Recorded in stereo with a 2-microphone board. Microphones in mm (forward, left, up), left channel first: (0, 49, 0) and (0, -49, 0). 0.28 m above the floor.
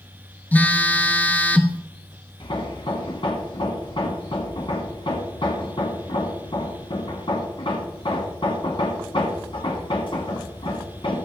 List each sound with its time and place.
0.5 s a phone buzzing: 15° left (ahead or behind), 0.6 m
2.4 s hammering: 60° left (ahead or behind), 1.2 m